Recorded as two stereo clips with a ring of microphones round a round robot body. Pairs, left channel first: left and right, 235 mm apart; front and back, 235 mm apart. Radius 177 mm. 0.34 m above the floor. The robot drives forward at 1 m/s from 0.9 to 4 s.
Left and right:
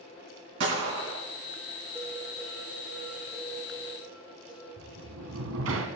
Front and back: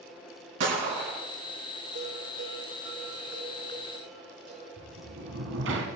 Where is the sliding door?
130° right, 1.0 m.